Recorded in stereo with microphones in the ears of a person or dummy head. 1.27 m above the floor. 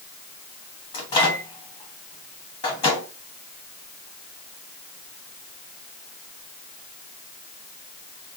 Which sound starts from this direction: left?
A microwave, at 0.9 s.